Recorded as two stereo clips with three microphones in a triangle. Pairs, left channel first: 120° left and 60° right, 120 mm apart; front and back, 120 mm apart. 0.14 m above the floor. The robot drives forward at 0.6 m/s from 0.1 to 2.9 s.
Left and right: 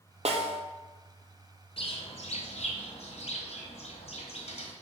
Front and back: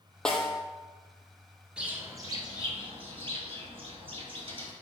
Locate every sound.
0.2 s a snare drum: 85° right, 0.7 m; by 0.6 s 100° right, 0.7 m
1.8 s a bird: 100° left, 0.7 m; by 4.7 s 140° left, 1.0 m